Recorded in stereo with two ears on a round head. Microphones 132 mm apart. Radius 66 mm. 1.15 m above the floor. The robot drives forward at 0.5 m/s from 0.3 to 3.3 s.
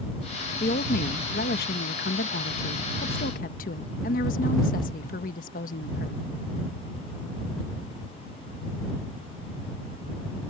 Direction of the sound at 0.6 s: 55° left (ahead or behind).